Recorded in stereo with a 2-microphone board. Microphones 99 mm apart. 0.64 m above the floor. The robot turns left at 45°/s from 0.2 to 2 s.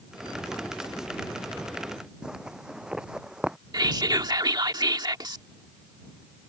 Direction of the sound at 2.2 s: 5° right (ahead or behind).